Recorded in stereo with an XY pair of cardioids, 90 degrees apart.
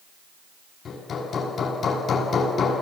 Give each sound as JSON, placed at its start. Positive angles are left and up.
{"t": 0.8, "sound": "hammering", "azimuth_deg": 60, "distance_m": 9.0}